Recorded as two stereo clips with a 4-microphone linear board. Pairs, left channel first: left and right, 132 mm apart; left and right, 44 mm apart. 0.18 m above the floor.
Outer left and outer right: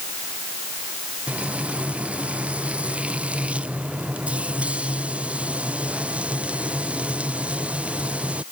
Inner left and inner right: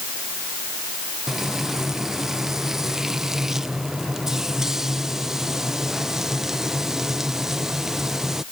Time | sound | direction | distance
1.3 | frying | 10° right (ahead or behind) | ?